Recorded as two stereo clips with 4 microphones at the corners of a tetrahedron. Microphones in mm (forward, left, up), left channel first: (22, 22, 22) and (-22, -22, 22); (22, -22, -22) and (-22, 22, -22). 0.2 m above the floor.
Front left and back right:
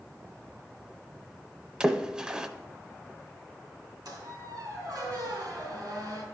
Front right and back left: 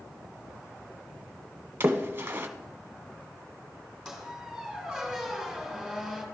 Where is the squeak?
135° right, 3.5 m.